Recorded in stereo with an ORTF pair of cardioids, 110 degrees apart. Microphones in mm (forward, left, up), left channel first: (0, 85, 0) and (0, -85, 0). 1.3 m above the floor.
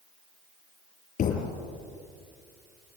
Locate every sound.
1.2 s a thud: 55° left, 7 m